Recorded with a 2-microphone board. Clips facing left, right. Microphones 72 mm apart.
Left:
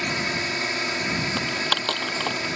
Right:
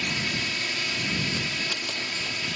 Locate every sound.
0.0 s a drone: 40° left (ahead or behind)
1.4 s typing on a keyboard: 70° left (ahead or behind)